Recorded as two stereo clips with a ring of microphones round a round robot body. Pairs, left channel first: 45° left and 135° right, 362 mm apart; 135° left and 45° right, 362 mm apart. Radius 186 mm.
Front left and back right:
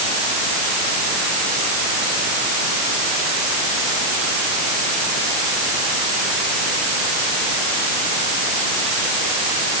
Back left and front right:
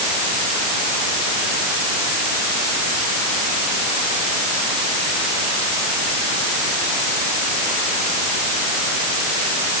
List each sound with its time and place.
Only background noise.